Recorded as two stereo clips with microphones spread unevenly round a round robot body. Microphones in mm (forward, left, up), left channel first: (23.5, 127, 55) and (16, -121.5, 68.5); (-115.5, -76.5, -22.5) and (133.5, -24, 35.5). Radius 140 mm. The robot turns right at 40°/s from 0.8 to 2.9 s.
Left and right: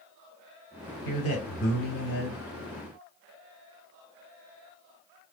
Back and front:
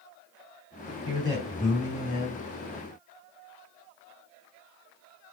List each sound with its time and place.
1.1 s a man speaking: 85° left, 3 m; by 2.4 s 135° left, 3 m